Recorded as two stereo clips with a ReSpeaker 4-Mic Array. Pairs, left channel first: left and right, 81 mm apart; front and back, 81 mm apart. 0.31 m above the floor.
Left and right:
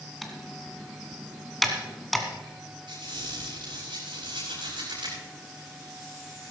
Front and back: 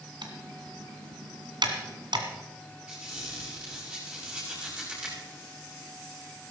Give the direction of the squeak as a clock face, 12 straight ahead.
3 o'clock.